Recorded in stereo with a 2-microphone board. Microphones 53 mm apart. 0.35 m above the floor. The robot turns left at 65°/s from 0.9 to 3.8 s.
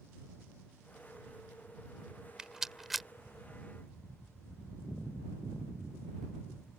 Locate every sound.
2.4 s a rattle: 15° right (ahead or behind); by 3.1 s centre (ahead or behind)